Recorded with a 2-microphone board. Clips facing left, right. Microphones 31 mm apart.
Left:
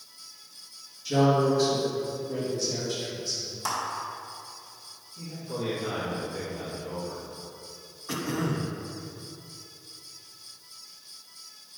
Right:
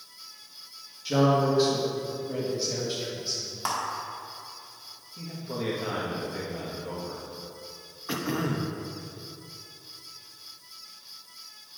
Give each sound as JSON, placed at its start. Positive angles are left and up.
{"t": 1.1, "sound": "a man speaking", "side_deg": -20, "distance_m": 1.7}
{"t": 3.6, "sound": "a clap", "side_deg": -25, "distance_m": 1.8}
{"t": 5.2, "sound": "a man speaking", "side_deg": -60, "distance_m": 1.6}
{"t": 8.1, "sound": "throat clearing", "side_deg": -15, "distance_m": 0.6}